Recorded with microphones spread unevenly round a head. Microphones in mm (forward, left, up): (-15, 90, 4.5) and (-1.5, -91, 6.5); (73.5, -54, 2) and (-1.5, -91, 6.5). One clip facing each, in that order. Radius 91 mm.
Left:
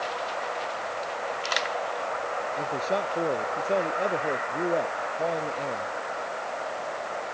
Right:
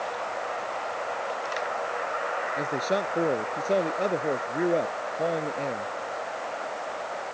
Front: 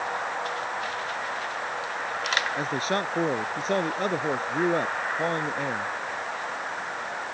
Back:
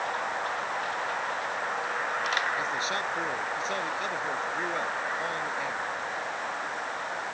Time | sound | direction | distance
2.6 | a man speaking | 15° right | ?